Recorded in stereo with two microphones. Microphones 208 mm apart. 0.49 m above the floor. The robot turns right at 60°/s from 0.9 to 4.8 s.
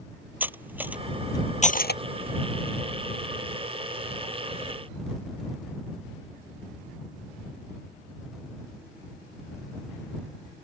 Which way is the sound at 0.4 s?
10° right (ahead or behind).